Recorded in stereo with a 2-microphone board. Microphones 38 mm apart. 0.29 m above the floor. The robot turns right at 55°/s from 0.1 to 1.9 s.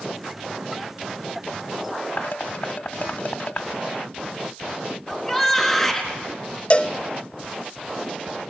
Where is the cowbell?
35° left (ahead or behind), 0.5 m.